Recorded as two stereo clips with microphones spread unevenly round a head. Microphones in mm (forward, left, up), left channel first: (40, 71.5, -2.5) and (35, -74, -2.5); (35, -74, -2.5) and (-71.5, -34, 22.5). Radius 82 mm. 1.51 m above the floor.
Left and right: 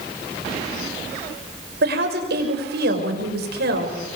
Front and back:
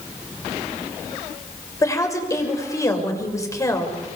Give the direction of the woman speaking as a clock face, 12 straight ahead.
3 o'clock.